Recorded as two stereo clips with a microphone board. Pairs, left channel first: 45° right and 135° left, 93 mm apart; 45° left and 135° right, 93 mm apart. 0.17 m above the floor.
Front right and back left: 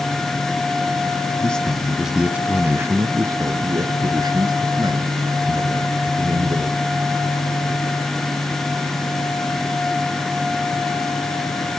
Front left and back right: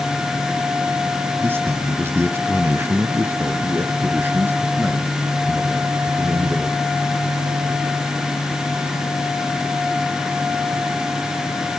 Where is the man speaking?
110° right, 1.2 m; by 6.8 s 155° left, 3 m.